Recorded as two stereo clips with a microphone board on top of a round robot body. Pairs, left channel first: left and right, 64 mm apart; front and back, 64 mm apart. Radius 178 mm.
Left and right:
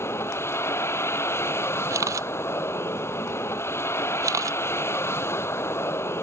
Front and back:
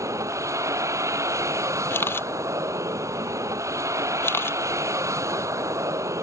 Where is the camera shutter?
55° right.